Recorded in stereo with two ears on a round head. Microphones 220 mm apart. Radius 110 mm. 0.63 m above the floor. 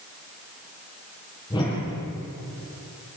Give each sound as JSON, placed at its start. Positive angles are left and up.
{"t": 1.5, "sound": "a whoosh", "side_deg": 20, "distance_m": 8.5}